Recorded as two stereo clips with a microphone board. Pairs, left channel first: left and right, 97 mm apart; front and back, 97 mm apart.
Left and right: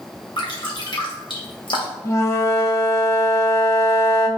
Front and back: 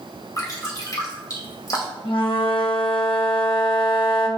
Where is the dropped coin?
I don't hear a dropped coin.